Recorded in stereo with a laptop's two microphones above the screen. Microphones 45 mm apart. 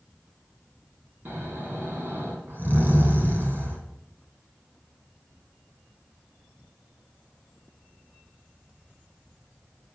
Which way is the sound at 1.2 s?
50° right (ahead or behind).